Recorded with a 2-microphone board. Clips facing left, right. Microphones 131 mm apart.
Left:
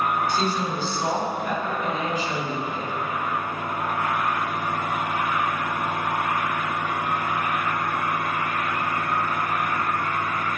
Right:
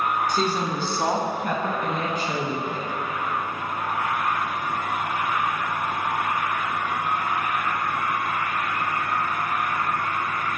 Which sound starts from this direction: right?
A woman speaking, at 0.3 s.